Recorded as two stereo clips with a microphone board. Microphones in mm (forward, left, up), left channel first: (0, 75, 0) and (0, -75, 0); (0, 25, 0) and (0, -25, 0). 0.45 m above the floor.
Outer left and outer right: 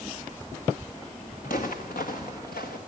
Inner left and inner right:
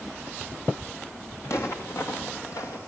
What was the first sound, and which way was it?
Footsteps, 65° left (ahead or behind).